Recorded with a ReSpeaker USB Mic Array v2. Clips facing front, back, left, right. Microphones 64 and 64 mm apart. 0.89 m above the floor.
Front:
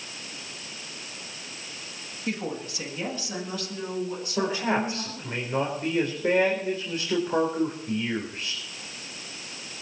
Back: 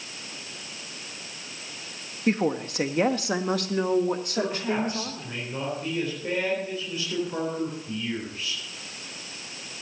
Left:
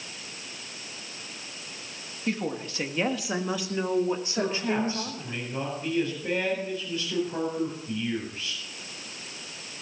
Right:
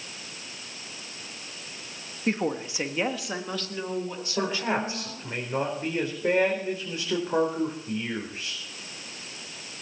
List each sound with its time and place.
2.3 s a woman speaking: 135° right, 1.5 m; by 5.4 s 140° left, 3.5 m
4.4 s a man speaking: 55° right, 4 m